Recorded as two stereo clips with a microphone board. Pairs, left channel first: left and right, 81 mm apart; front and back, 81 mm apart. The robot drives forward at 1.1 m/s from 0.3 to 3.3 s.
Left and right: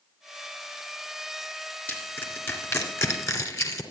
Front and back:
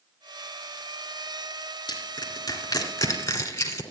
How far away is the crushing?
About 3.5 m.